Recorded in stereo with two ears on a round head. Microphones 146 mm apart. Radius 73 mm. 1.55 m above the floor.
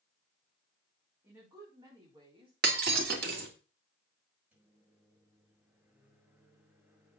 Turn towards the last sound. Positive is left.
turn(degrees=-10)  # may be behind; listen again after turning